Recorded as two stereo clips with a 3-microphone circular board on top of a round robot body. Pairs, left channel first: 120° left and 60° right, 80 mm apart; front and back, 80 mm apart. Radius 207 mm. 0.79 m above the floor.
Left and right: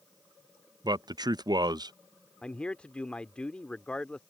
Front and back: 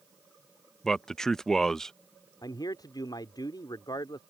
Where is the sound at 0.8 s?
85° right.